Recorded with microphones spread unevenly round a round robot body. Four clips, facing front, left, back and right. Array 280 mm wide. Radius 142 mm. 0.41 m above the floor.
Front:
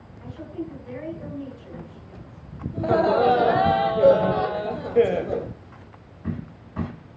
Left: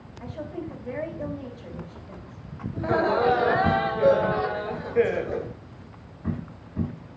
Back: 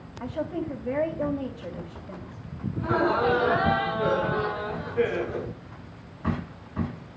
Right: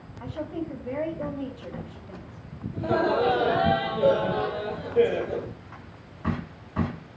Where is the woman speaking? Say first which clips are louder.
Right 2 dB, back 4 dB; 170° right, 3 m.